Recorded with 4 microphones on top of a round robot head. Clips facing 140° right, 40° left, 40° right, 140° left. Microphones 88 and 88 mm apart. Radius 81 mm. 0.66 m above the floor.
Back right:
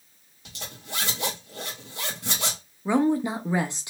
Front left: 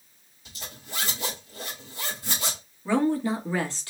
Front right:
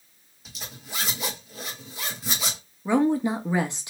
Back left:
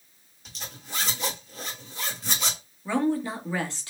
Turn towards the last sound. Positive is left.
turn(degrees=-90)